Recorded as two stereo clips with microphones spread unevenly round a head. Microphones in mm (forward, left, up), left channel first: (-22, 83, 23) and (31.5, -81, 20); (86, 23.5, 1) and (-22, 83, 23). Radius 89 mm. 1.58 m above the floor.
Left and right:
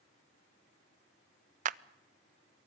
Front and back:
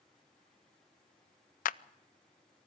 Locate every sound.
1.6 s a clap: 30° right, 0.5 m